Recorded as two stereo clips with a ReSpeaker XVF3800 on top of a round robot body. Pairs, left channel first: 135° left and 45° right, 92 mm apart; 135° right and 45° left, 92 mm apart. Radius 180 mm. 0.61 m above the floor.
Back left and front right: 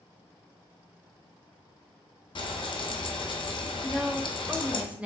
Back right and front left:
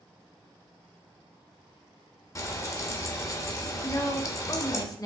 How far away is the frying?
About 0.6 m.